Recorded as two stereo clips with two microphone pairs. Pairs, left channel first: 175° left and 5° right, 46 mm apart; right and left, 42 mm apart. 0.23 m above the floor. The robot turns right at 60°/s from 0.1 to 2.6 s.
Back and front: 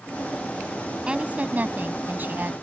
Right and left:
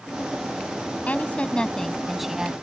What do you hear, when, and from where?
1.1 s a woman speaking: 65° right; by 2.5 s 25° left